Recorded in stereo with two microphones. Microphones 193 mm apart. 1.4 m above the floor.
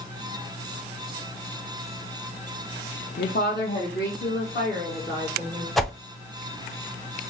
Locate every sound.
3.2 s a woman speaking: 55° left (ahead or behind), 0.6 m; by 5.7 s 60° left (ahead or behind), 2.5 m
5.8 s a whoosh: centre (ahead or behind), 0.5 m